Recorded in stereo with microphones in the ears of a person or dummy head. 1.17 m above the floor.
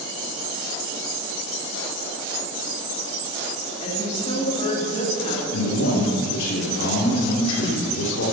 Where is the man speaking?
70° left (ahead or behind), 3 m.